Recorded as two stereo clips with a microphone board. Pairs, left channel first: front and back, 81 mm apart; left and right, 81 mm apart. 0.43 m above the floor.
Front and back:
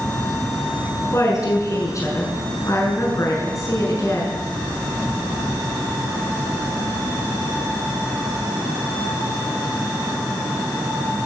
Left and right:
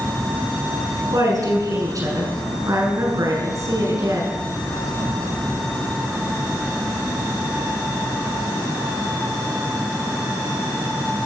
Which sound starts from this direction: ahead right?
A woman speaking, at 1.1 s.